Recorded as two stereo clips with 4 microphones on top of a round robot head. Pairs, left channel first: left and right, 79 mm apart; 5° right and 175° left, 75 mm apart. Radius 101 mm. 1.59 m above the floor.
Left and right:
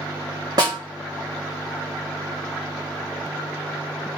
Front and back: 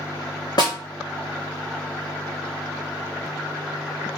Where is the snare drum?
45° right, 1.8 m.